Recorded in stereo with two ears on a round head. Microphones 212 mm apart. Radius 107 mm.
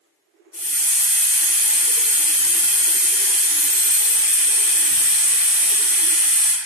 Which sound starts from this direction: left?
A hiss, at 0.5 s.